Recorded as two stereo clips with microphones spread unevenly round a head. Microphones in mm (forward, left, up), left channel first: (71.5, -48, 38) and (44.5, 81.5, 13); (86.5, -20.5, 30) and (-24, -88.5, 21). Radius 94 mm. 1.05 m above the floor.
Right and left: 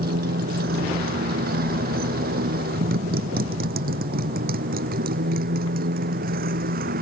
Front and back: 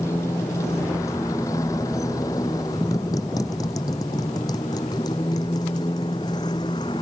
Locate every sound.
0.0 s a motorcycle: 110° left; by 7.0 s 100° left